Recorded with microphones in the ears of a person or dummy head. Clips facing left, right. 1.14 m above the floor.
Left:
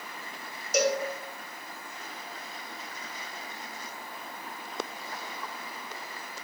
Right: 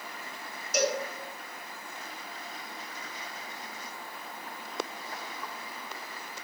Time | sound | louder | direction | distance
0.7 | a cowbell | left 3 dB | 75° left (ahead or behind) | 1.7 m